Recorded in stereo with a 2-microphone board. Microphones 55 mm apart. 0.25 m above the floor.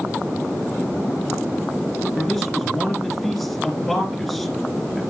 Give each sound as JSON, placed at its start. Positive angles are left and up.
{"t": 2.2, "sound": "a man speaking", "side_deg": 0, "distance_m": 3.5}